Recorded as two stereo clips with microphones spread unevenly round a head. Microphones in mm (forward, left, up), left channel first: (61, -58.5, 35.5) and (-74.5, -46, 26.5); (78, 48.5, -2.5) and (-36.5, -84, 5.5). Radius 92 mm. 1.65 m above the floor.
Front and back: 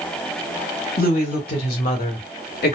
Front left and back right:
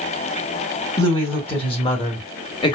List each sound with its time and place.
1.0 s a woman speaking: 10° right, 2 m; by 2.8 s 15° right, 1.2 m